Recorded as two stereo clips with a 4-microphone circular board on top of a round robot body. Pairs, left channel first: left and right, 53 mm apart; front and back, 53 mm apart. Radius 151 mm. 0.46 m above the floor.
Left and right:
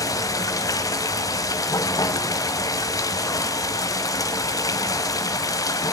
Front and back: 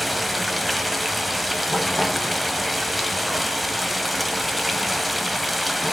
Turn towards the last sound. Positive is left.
turn(degrees=90)